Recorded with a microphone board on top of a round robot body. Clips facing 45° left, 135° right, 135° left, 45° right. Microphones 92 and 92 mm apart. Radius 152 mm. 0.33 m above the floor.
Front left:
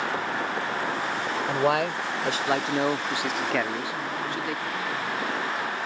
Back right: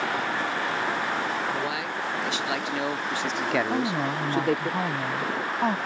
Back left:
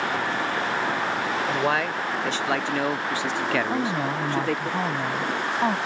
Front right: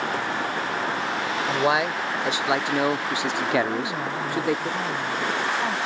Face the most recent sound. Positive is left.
turn(degrees=-165)